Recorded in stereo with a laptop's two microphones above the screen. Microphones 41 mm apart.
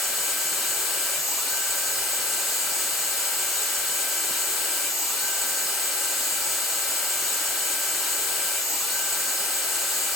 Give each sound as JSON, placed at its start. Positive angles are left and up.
{"t": 0.0, "sound": "a machine running", "side_deg": 0, "distance_m": 2.5}